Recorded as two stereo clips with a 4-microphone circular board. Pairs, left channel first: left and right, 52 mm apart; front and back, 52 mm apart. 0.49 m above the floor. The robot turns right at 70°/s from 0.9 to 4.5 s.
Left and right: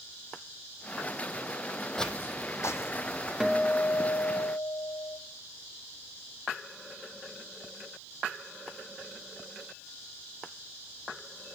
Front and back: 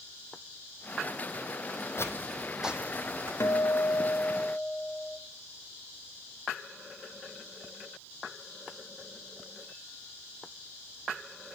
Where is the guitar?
10° right, 0.7 m; by 5.2 s 70° left, 0.7 m.